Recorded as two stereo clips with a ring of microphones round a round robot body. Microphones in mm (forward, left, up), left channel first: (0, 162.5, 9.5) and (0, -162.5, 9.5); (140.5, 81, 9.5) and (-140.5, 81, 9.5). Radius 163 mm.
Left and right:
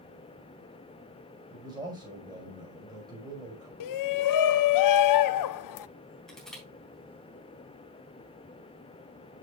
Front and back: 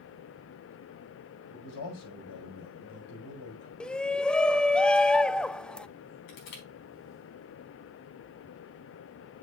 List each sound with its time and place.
1.5 s a man speaking: 10° right, 5.5 m
3.8 s a shout: 85° left, 0.6 m
6.3 s crushing: straight ahead, 4 m